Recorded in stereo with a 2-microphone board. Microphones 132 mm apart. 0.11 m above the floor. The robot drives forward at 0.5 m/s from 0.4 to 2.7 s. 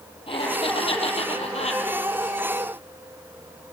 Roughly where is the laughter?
Left.